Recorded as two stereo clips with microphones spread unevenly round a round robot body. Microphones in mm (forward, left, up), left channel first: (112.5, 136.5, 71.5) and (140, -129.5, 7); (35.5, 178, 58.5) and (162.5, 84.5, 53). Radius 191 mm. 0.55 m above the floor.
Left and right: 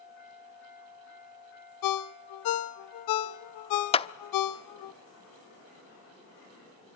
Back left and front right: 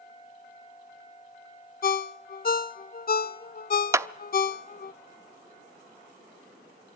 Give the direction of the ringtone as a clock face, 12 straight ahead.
8 o'clock.